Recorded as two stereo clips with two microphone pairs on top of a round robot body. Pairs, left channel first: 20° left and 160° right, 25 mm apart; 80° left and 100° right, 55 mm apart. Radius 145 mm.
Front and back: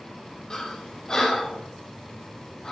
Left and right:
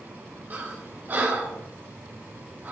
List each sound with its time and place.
0.5 s breathing: 40° right, 1.2 m